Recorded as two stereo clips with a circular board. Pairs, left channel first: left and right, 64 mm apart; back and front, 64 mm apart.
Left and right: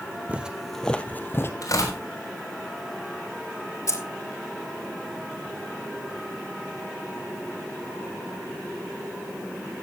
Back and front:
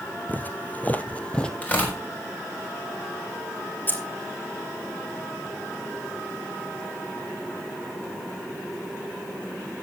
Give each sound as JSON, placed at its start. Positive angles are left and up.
{"t": 0.3, "sound": "footsteps", "azimuth_deg": -140, "distance_m": 0.9}
{"t": 1.6, "sound": "tearing paper", "azimuth_deg": 115, "distance_m": 4.0}
{"t": 3.9, "sound": "keys jangling", "azimuth_deg": 120, "distance_m": 2.0}